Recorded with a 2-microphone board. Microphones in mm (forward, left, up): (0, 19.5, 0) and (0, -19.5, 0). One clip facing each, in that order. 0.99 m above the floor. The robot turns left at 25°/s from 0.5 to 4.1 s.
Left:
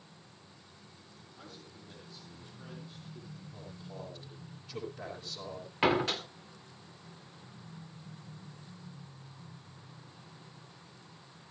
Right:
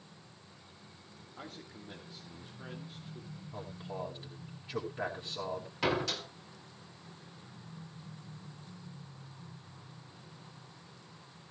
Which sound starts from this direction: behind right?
A man speaking, at 1.4 s.